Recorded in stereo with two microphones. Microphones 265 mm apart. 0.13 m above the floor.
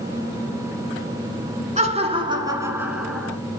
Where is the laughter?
25° right (ahead or behind), 1.4 m; by 3.3 s centre (ahead or behind), 1.5 m.